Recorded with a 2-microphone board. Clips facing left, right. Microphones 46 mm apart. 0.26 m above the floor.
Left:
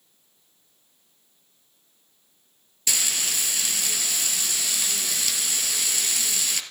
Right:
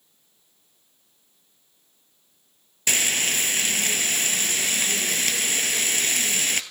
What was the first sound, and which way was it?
Frying, 45° right (ahead or behind).